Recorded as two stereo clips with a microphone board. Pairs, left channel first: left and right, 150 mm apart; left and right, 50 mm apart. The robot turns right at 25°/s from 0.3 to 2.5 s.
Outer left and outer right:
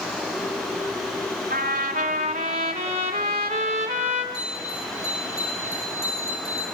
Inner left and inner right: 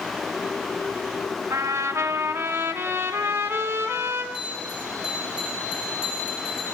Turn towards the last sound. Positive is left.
turn(degrees=35)  # may be behind; listen again after turning